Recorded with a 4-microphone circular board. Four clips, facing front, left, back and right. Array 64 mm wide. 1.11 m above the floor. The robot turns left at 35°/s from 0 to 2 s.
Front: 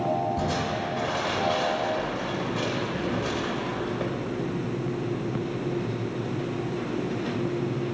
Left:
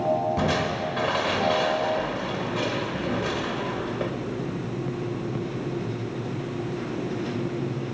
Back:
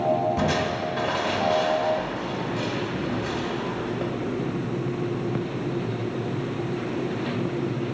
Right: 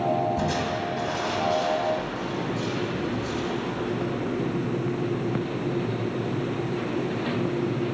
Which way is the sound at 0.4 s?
120° left.